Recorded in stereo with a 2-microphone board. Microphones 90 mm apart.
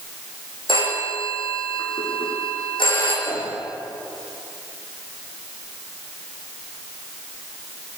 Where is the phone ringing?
70° left (ahead or behind), 7 m.